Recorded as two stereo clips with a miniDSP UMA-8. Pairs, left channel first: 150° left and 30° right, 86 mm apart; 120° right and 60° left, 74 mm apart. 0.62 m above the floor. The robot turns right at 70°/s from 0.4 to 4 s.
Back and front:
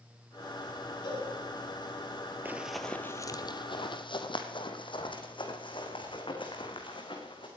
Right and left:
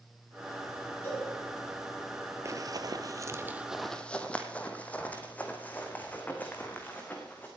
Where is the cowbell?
175° left, 6 m; by 1.3 s 165° right, 6 m.